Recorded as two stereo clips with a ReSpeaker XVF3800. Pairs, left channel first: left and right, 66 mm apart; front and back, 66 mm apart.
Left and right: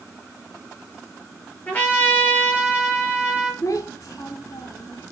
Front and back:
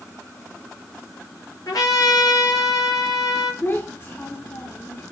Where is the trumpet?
25° left, 8 m.